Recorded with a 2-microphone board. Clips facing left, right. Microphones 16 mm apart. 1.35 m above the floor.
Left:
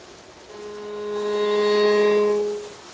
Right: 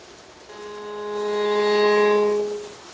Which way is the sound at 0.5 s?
60° right (ahead or behind).